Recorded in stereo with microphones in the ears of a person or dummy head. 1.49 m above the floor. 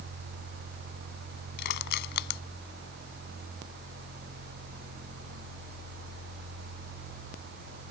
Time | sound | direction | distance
1.6 | crushing | 65° left (ahead or behind) | ?